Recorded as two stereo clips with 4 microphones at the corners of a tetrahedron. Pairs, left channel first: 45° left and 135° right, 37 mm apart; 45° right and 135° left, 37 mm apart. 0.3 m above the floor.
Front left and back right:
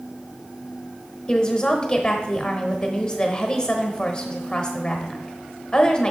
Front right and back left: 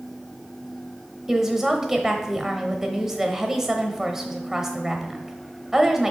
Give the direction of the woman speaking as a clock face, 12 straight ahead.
9 o'clock.